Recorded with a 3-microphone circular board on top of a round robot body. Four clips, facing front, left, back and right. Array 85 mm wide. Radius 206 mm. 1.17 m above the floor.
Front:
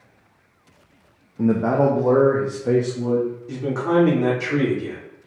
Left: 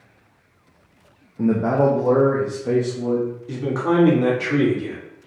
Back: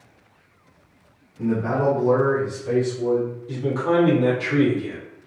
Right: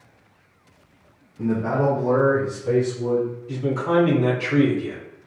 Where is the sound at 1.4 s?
35° left, 1.0 m; by 3.3 s 20° left, 2.5 m.